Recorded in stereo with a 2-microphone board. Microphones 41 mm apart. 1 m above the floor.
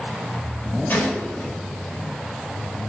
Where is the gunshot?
40° left (ahead or behind), 4 m.